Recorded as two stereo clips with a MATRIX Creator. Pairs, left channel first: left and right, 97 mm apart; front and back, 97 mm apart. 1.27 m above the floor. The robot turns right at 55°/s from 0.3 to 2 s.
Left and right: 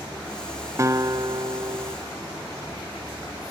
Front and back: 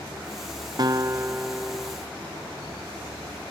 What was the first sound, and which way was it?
A guitar, 145° right.